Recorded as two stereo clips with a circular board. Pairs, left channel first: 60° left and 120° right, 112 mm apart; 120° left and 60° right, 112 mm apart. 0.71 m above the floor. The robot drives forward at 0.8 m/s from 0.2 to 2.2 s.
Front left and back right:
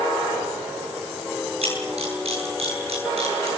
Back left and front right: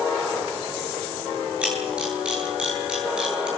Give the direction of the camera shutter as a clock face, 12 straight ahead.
5 o'clock.